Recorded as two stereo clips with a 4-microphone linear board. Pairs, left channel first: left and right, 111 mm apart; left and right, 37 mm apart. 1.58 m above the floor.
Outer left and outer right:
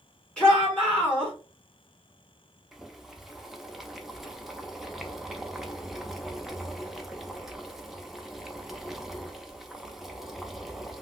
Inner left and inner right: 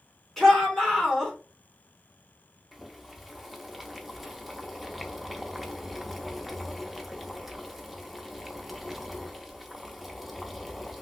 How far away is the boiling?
About 0.5 m.